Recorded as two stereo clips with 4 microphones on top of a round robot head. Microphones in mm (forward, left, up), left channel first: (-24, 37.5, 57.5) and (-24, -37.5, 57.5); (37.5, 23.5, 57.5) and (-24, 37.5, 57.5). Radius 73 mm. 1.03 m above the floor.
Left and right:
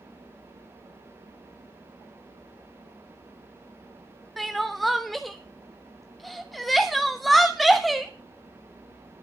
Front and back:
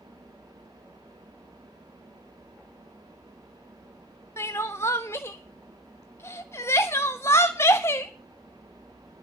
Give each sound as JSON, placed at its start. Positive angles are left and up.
{"t": 4.4, "sound": "crying", "azimuth_deg": 0, "distance_m": 0.7}